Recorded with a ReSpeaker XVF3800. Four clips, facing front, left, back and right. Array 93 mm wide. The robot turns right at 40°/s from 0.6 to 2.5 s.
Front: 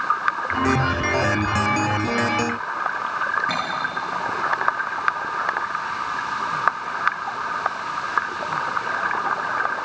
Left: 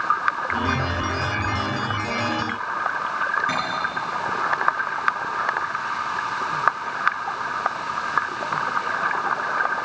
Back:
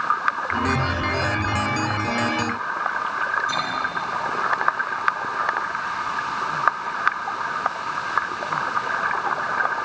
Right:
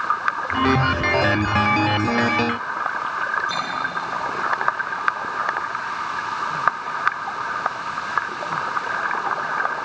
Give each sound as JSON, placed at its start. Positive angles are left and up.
{"t": 3.5, "sound": "cutlery clinking", "azimuth_deg": 50, "distance_m": 7.5}